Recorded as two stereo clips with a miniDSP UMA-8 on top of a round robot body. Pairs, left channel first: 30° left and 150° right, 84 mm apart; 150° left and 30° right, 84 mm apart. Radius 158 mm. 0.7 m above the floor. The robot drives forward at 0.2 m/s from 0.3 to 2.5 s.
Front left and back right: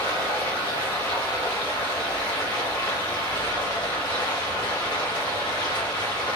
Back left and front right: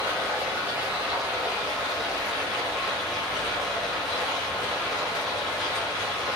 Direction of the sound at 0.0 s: 45° left.